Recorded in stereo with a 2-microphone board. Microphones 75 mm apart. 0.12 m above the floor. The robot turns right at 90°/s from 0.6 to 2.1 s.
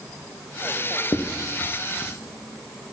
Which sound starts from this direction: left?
Writing, at 1.1 s.